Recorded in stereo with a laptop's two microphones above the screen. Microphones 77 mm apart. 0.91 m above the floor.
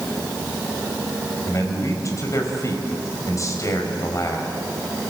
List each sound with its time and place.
1.5 s a man speaking: 45° left (ahead or behind), 5 m